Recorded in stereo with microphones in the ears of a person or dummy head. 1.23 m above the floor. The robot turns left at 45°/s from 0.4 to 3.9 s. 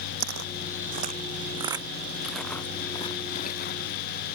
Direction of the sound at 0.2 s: 65° right (ahead or behind).